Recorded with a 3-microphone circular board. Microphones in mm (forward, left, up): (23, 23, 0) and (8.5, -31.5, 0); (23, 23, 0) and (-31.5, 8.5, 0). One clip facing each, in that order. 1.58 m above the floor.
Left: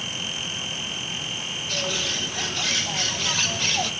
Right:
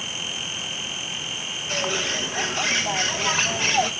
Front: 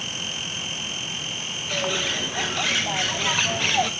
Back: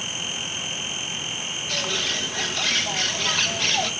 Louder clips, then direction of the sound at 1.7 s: Right 3 dB, front 2 dB; 55° right.